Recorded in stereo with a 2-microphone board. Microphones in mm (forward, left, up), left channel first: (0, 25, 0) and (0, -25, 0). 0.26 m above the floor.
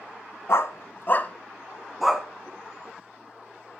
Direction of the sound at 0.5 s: 65° left (ahead or behind).